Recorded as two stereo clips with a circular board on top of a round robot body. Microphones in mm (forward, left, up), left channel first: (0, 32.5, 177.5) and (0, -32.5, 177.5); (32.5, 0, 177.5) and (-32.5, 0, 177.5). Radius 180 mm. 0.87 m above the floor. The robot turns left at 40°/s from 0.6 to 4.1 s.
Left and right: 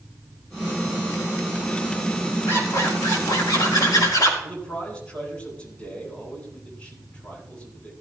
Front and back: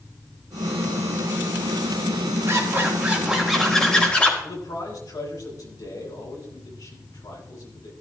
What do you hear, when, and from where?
2.5 s a zipper: 140° left, 4.5 m; by 4.3 s 70° left, 4.5 m
4.4 s a man speaking: 20° left, 9 m